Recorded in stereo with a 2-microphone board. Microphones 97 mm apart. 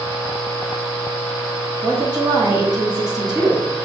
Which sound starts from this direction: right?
A woman speaking, at 1.8 s.